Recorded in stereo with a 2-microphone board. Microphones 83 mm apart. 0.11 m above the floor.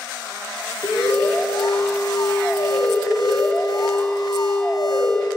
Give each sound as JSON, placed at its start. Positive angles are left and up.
{"t": 0.8, "sound": "an alarm", "side_deg": 55, "distance_m": 7.0}